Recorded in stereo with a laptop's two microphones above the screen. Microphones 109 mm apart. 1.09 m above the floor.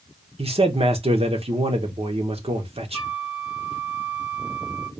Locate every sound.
0.4 s a man speaking: 65° right (ahead or behind), 1.0 m
2.9 s a flute: 10° right (ahead or behind), 0.8 m